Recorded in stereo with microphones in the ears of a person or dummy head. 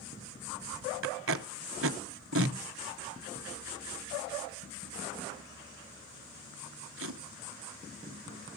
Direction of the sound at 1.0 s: 65° right (ahead or behind).